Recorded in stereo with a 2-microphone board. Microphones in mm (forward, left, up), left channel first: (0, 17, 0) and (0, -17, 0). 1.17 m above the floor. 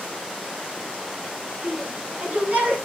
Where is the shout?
45° right (ahead or behind), 8 m.